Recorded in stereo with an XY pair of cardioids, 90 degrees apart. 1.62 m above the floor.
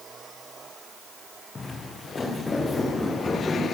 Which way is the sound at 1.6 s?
35° left.